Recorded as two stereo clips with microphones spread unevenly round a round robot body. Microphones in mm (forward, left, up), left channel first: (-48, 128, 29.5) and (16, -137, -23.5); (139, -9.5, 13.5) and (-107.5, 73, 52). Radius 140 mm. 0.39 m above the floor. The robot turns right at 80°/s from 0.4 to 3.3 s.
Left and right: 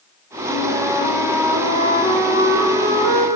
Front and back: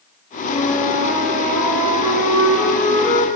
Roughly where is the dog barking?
No dog barking in this recording.